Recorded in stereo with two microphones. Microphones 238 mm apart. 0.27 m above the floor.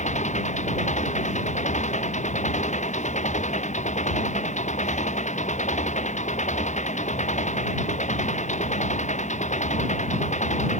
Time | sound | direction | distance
0.0 | an engine running | 30° left (ahead or behind) | ?